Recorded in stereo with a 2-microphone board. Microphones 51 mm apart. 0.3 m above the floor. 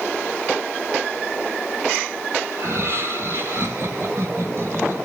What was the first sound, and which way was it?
Laughter, 55° right (ahead or behind).